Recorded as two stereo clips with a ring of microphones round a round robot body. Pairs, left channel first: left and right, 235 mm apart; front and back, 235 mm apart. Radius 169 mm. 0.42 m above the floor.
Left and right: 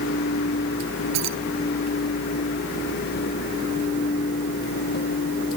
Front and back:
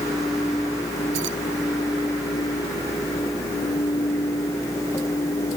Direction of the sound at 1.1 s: 120° right.